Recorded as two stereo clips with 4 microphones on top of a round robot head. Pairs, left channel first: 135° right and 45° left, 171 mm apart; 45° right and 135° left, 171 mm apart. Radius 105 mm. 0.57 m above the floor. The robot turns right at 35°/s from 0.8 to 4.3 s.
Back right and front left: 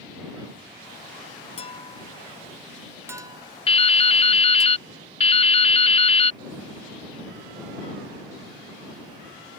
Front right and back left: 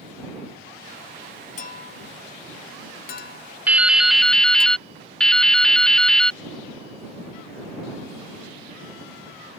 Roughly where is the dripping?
Behind right.